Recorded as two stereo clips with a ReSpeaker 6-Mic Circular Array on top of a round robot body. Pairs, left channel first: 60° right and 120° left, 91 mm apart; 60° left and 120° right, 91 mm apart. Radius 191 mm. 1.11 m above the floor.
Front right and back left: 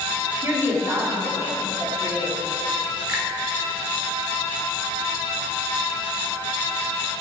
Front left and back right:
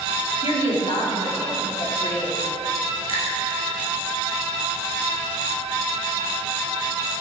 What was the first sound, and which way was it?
A woman speaking, 60° left.